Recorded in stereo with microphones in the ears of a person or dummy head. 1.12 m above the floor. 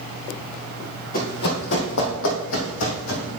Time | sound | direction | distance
1.1 | running footsteps | 45° left (ahead or behind) | 1.9 m